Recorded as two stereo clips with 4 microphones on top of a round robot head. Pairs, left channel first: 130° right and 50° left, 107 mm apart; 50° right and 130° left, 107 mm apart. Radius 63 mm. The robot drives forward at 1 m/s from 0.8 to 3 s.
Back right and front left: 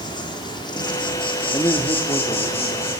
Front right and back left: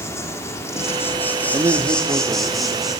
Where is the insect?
105° right, 3 m; by 3.0 s 145° right, 4 m.